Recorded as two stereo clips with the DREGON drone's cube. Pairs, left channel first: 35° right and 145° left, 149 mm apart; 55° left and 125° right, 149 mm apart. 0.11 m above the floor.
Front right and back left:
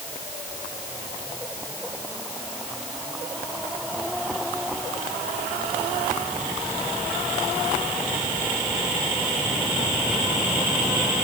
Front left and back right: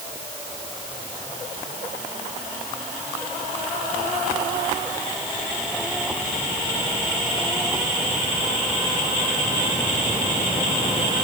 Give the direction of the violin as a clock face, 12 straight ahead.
I don't hear a violin.